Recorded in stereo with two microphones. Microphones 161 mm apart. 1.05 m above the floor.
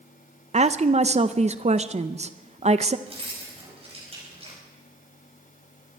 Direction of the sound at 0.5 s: 45° right (ahead or behind).